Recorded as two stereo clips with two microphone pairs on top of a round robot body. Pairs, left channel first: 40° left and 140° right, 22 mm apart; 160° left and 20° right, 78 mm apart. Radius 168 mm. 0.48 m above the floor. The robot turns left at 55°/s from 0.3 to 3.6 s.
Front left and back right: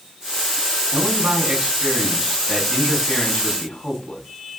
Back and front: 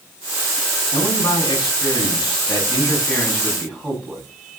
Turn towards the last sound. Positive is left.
turn(degrees=60)